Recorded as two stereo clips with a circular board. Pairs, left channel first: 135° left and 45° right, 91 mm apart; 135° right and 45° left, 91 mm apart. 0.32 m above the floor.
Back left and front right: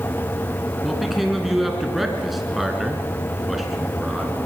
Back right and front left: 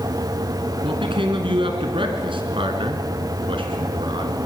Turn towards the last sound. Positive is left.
turn(degrees=45)